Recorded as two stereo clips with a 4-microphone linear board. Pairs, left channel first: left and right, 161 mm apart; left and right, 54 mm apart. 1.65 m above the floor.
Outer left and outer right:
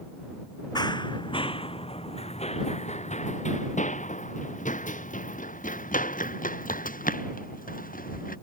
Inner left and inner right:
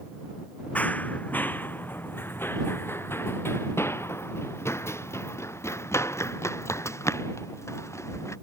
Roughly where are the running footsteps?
Left.